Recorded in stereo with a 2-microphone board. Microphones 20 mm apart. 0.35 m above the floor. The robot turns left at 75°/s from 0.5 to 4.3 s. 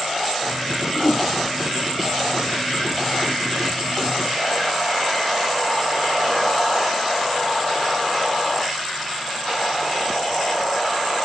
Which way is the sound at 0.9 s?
70° left (ahead or behind).